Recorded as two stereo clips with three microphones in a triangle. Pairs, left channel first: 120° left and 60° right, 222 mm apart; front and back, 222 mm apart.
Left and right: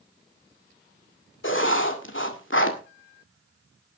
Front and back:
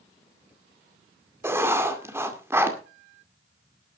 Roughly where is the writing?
Left.